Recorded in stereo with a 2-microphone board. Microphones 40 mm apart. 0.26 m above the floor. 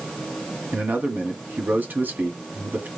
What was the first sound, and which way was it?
A man speaking, 50° right (ahead or behind).